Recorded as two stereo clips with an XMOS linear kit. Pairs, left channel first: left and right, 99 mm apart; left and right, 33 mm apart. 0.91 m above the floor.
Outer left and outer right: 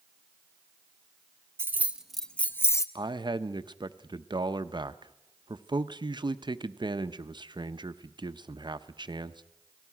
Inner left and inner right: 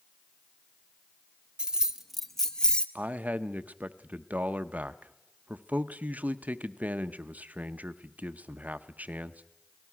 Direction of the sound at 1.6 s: 25° right (ahead or behind).